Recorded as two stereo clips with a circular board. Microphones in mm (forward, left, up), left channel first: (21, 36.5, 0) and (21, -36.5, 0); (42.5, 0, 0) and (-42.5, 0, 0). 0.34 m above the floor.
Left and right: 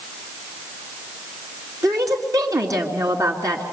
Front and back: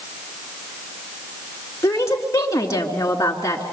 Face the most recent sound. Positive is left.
turn(degrees=-55)